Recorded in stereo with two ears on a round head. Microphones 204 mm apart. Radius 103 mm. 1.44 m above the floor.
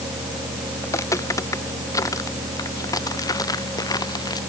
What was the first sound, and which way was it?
Footsteps, 15° left (ahead or behind).